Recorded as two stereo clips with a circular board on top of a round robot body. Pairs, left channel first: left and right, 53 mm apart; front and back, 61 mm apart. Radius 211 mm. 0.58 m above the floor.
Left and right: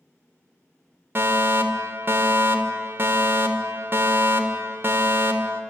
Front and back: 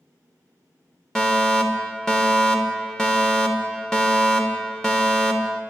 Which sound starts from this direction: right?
A fire alarm, at 1.1 s.